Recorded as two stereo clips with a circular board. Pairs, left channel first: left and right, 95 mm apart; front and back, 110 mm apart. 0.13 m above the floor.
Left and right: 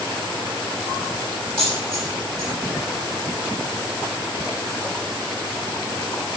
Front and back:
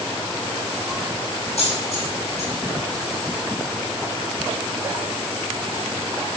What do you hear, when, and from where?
1.6 s a dropped coin: 5° left, 2.0 m